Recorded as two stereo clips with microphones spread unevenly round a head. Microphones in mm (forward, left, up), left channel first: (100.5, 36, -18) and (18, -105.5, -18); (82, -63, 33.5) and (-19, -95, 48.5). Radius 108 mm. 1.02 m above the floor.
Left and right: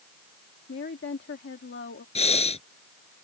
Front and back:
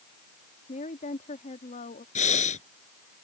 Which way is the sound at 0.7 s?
40° left.